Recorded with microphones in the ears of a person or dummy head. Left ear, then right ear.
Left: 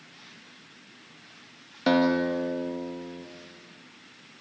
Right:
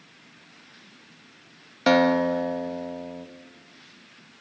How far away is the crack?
No crack in this recording.